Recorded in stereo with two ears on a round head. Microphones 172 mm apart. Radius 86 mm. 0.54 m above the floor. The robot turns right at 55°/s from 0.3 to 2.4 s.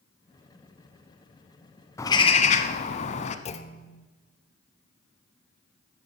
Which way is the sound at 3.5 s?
35° left (ahead or behind).